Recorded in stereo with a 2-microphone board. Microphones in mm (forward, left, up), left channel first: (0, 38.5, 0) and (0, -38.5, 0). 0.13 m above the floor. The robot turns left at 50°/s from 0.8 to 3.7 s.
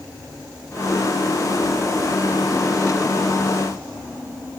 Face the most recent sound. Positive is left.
No sound to turn to.